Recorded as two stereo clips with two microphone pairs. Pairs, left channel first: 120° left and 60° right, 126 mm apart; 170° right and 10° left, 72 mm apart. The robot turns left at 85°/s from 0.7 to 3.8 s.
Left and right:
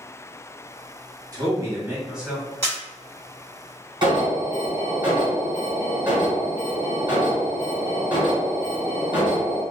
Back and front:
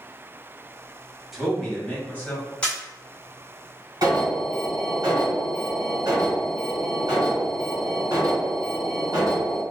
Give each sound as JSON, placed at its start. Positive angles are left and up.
{"t": 1.3, "sound": "a man speaking", "azimuth_deg": -70, "distance_m": 1.0}
{"t": 2.6, "sound": "a camera shutter", "azimuth_deg": 150, "distance_m": 1.6}
{"t": 4.0, "sound": "an alarm", "azimuth_deg": -10, "distance_m": 1.5}